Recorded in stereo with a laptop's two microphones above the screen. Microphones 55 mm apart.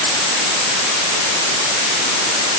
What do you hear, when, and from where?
Only background noise.